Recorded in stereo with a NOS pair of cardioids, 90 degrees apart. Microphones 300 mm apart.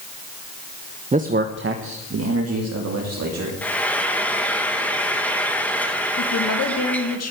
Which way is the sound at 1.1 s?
25° right.